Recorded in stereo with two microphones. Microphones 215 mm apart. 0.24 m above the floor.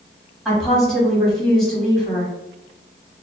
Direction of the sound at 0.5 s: Centre (ahead or behind).